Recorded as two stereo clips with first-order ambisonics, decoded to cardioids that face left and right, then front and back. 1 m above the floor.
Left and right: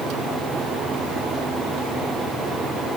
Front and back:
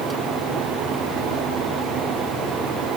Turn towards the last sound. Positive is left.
No sound to turn to.